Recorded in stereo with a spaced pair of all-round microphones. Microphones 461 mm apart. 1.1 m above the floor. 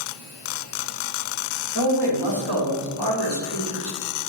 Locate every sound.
1.8 s a man speaking: 65° right (ahead or behind), 3 m